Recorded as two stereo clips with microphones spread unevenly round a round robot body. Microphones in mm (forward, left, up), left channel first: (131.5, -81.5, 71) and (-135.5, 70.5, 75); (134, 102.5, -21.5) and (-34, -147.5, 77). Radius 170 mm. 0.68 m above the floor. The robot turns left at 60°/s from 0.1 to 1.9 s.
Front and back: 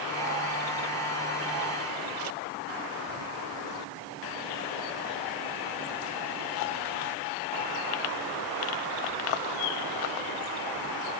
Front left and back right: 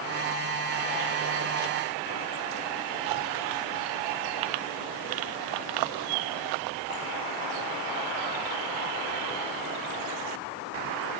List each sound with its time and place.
Only background noise.